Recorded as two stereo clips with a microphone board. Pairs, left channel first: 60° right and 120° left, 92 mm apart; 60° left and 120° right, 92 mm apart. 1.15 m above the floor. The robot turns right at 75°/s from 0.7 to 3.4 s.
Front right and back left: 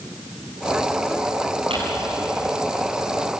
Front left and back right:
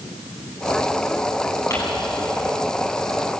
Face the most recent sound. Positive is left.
turn(degrees=-110)